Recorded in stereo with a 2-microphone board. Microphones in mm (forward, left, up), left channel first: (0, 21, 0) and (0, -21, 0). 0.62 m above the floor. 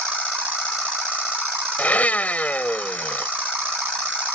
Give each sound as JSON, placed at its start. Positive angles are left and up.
{"t": 1.8, "sound": "a blender", "side_deg": 35}